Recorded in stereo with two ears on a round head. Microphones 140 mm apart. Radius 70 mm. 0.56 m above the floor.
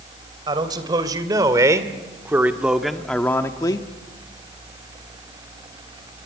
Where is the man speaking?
30° right (ahead or behind), 3 m; by 3.9 s 30° left (ahead or behind), 1.2 m.